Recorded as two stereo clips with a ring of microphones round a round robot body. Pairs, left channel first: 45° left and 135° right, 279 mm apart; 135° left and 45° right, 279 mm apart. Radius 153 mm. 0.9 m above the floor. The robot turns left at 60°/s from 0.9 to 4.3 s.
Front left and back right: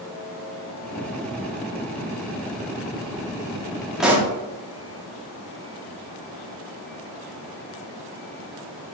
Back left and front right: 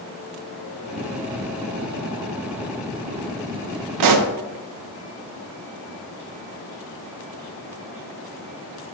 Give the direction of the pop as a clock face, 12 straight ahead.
2 o'clock.